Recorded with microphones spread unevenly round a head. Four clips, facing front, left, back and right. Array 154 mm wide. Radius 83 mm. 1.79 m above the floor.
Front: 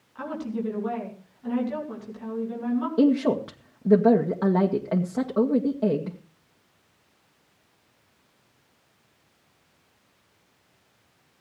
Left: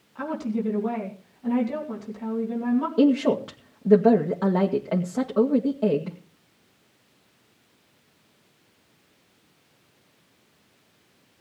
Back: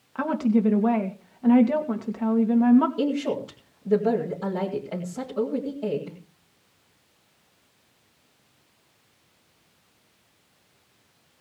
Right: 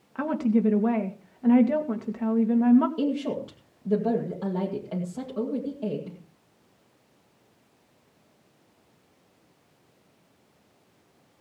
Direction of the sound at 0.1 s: 140° right.